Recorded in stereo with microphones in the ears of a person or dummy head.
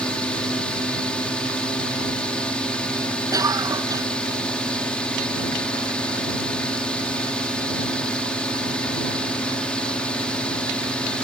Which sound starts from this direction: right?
A cough, at 3.3 s.